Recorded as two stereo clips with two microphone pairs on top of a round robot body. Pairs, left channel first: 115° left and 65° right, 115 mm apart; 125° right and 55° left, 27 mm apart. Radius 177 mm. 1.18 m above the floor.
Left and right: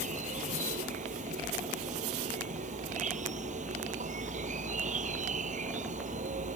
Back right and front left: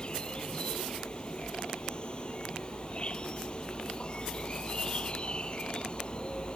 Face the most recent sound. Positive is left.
turn(degrees=-70)